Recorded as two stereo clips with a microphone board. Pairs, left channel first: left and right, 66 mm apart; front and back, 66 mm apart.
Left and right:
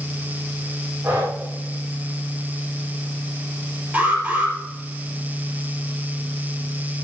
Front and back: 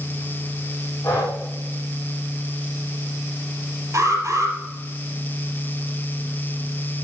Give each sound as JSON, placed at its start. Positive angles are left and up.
{"t": 1.0, "sound": "breathing", "azimuth_deg": -40, "distance_m": 6.5}
{"t": 3.9, "sound": "an alarm", "azimuth_deg": -155, "distance_m": 4.0}